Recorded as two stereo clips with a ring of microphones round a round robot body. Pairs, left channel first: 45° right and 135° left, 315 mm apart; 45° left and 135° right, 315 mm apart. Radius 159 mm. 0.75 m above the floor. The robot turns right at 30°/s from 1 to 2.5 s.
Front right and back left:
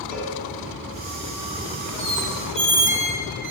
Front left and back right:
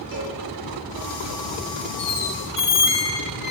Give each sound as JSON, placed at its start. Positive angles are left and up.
{"t": 0.1, "sound": "a cowbell", "azimuth_deg": 15, "distance_m": 4.0}
{"t": 2.0, "sound": "a squeak", "azimuth_deg": 70, "distance_m": 1.5}